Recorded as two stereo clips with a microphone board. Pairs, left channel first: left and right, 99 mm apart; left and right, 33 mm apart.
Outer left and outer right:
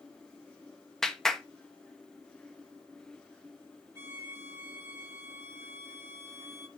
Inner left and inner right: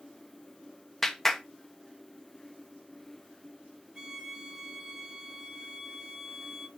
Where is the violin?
25° right (ahead or behind), 1.4 m.